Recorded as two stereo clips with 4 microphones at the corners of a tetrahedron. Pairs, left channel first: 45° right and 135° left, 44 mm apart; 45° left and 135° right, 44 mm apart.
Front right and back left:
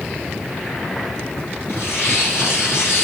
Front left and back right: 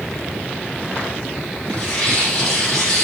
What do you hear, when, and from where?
1.7 s tearing paper: 20° right, 6 m